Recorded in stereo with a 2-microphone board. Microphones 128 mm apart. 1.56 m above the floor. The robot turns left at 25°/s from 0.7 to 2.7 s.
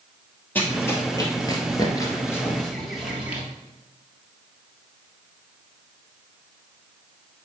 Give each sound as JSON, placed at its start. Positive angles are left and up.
{"t": 0.6, "sound": "running footsteps", "side_deg": 15, "distance_m": 2.5}